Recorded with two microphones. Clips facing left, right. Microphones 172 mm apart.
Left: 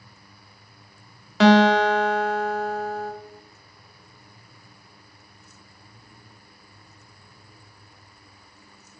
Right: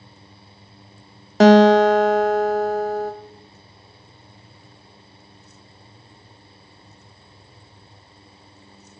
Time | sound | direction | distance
1.4 | a guitar | 45° right (ahead or behind) | 0.5 m